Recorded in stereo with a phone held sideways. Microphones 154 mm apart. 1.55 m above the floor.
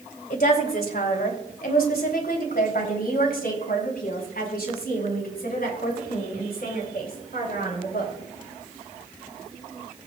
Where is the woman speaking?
70° left (ahead or behind), 2.5 m; by 8.1 s 75° left (ahead or behind), 7 m.